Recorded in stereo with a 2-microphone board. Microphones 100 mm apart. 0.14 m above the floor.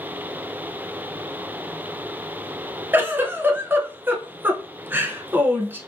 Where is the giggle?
20° right (ahead or behind), 0.6 m.